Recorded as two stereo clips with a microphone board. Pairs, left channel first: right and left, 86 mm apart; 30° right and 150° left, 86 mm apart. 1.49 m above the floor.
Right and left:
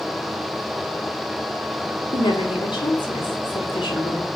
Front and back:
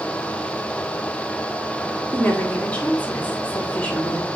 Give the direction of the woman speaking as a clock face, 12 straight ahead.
3 o'clock.